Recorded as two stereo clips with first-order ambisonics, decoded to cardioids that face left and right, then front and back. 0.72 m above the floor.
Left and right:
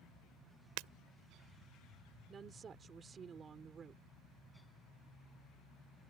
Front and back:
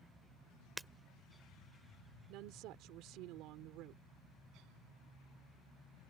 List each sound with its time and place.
0.8 s breaking glass: 95° right
2.3 s a woman speaking: 155° right